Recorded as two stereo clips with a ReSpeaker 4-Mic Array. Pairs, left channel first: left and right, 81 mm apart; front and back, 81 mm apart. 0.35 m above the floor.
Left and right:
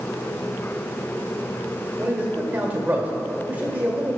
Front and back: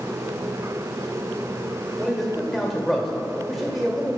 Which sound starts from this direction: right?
A man speaking, at 2.0 s.